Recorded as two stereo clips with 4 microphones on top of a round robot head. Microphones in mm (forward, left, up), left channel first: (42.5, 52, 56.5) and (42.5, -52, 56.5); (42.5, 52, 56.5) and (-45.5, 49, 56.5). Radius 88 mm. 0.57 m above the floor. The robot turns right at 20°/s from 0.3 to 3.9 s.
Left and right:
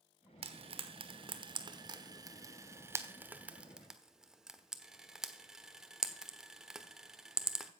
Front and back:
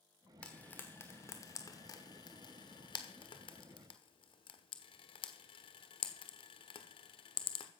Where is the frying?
75° right, 1.3 m; by 7.7 s 5° right, 1.3 m.